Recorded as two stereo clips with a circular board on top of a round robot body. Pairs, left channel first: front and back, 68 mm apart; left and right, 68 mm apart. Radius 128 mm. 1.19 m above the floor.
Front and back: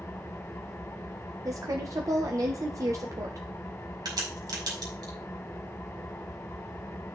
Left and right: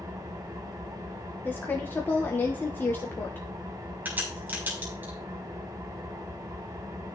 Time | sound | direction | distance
0.0 | an engine running | 55° right | 1.8 m
1.4 | a woman speaking | 150° left | 1.5 m
4.0 | a crack | 155° right | 4.5 m